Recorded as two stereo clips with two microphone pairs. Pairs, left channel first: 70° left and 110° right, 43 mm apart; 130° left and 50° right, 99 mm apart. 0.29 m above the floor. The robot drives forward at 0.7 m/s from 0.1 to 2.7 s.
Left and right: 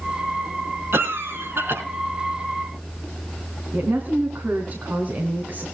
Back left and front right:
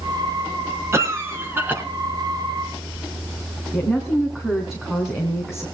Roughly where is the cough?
Right.